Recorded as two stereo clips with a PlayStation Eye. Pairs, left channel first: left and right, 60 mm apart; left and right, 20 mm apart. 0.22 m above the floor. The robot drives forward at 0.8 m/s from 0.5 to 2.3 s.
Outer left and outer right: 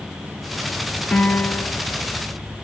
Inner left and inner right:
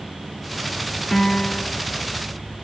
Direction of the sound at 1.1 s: 25° left (ahead or behind).